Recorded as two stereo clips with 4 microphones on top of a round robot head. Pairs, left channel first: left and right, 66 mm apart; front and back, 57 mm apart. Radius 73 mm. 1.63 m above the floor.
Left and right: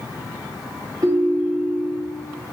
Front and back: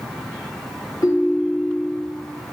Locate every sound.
1.0 s a ringtone: 45° right, 0.8 m